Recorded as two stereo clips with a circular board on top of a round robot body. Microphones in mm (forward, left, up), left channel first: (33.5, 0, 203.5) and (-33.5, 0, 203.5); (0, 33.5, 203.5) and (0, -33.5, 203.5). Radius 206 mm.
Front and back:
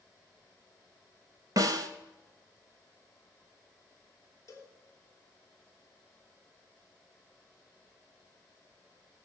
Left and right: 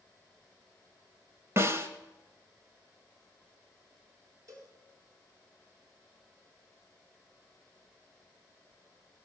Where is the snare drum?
145° right, 0.8 m.